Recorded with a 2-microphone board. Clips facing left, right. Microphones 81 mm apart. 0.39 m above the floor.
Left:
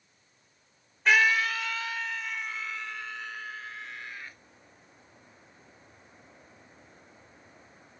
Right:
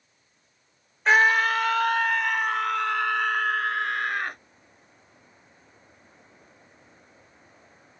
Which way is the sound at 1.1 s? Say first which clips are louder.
Right 4 dB; 35° right (ahead or behind).